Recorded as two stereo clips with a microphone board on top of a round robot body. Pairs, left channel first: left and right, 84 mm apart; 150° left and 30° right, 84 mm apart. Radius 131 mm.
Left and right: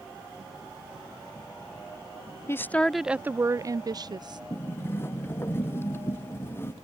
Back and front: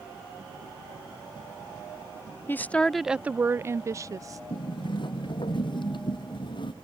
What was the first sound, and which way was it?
A woman speaking, 110° left.